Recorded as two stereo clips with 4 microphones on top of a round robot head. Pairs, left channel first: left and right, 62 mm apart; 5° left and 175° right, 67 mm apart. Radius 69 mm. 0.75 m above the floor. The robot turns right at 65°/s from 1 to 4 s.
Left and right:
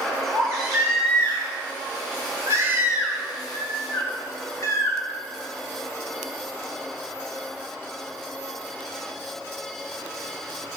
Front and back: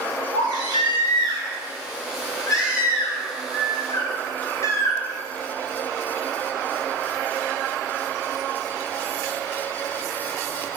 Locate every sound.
0.3 s a baby crying: 145° right, 2.5 m; by 5.0 s 50° left, 2.5 m